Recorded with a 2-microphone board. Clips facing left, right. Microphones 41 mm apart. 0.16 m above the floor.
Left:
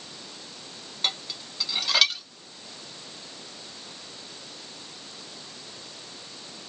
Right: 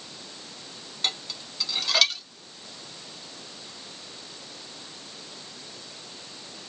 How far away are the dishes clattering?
About 0.8 m.